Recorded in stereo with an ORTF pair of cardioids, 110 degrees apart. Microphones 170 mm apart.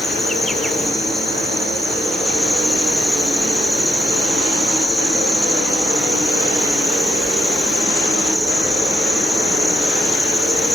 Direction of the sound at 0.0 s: Straight ahead.